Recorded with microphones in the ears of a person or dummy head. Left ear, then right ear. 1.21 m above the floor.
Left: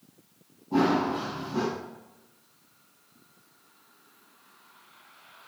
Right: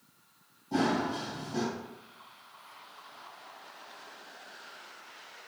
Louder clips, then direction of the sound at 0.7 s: Left 5 dB; 45° right (ahead or behind).